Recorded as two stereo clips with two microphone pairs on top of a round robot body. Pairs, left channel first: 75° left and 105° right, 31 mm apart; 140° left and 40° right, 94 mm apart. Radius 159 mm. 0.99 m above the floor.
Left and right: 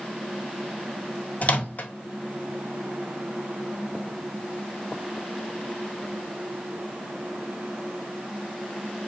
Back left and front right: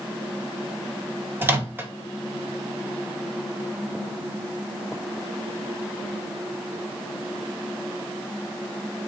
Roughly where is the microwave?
Ahead left.